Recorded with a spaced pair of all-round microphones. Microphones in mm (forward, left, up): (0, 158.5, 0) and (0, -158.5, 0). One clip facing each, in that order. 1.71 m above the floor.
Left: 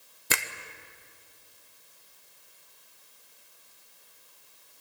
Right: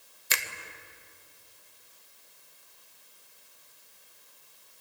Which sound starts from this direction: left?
A finger snap, at 0.3 s.